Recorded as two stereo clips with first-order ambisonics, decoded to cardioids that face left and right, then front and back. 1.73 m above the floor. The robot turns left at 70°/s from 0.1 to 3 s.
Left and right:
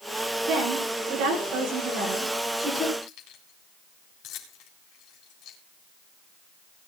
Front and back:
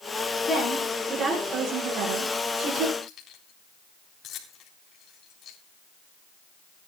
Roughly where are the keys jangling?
Ahead left.